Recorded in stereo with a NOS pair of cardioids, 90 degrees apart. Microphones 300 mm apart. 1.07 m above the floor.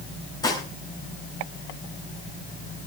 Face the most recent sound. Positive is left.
turn(degrees=10)